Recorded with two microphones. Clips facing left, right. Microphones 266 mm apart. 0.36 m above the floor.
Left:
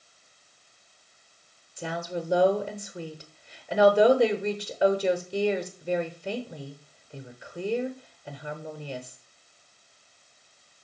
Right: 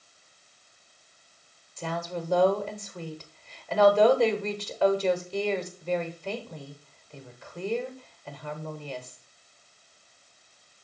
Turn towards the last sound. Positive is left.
turn(degrees=15)  # may be behind; listen again after turning